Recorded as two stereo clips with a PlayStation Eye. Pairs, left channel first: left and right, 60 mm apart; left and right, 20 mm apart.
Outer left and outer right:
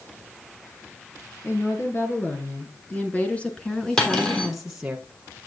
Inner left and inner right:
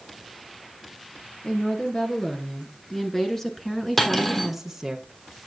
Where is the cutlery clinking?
15° left (ahead or behind), 3 m.